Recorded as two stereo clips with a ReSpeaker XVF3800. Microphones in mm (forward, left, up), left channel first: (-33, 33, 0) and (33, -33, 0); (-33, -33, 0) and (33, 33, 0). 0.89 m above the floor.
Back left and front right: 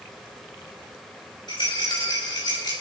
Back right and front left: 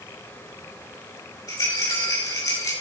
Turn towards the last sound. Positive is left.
turn(degrees=175)